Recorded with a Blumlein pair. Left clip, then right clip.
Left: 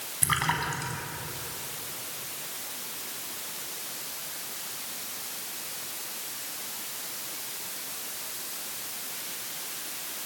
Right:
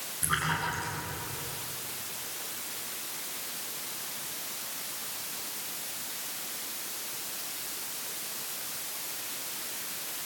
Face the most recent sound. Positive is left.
turn(degrees=25)